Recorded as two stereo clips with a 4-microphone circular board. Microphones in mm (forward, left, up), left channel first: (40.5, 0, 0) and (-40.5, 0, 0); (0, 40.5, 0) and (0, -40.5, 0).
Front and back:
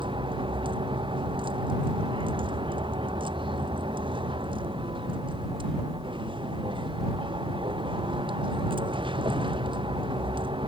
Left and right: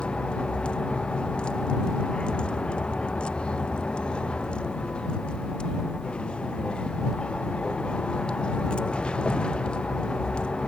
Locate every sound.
0.0 s a vehicle: 170° left